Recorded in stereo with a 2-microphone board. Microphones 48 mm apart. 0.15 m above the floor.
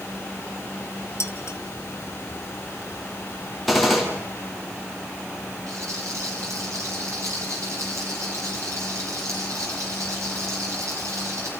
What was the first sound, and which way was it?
Dishes clattering, 60° left (ahead or behind).